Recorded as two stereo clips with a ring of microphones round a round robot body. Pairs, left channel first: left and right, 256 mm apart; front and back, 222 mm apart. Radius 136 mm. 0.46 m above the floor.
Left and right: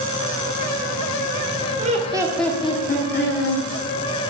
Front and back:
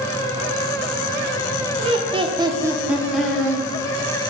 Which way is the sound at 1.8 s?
130° right.